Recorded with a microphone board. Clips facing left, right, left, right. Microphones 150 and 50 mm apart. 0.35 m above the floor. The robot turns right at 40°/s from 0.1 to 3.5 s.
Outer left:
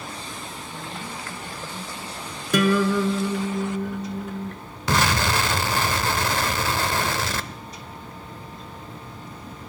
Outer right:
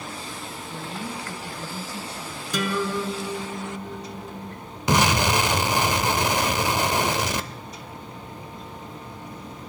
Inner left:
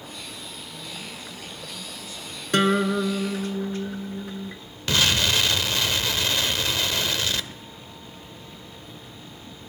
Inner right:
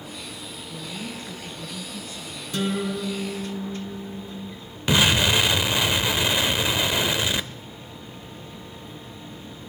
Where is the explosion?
20° right (ahead or behind), 0.7 m.